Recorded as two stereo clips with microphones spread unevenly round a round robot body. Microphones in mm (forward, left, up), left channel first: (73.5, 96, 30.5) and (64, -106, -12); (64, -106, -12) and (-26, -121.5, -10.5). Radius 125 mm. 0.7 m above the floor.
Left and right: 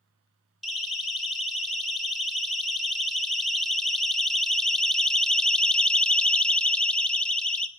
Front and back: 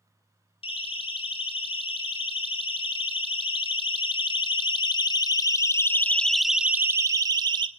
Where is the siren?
5° right, 3.5 m; by 7.7 s 175° right, 1.0 m.